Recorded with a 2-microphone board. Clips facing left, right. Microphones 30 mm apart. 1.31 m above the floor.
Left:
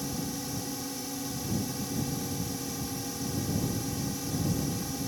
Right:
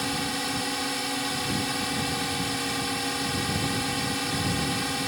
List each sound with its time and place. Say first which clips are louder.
0.0 s a drone: right 7 dB; 60° right (ahead or behind)